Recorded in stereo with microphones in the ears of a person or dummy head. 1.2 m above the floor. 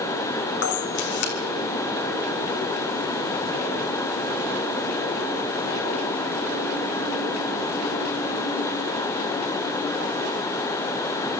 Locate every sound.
0.6 s a camera shutter: 60° left (ahead or behind), 3 m